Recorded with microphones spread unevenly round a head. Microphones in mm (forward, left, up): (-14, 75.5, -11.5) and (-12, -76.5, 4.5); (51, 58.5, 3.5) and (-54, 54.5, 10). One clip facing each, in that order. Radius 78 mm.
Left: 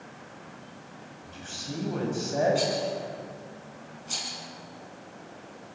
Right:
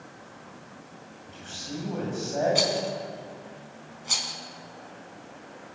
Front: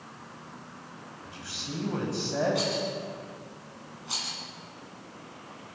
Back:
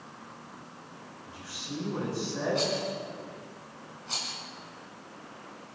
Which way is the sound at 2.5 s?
80° right.